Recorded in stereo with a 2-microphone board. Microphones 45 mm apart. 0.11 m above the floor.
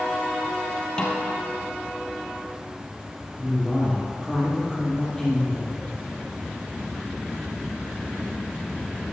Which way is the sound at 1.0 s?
20° left (ahead or behind).